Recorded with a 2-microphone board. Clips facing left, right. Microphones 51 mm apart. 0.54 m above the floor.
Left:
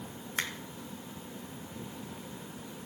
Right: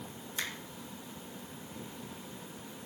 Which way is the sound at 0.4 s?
60° left (ahead or behind).